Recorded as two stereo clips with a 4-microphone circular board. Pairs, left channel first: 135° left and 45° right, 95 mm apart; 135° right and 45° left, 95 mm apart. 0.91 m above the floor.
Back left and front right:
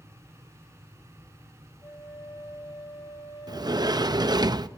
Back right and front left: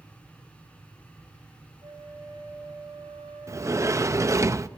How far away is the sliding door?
About 0.5 m.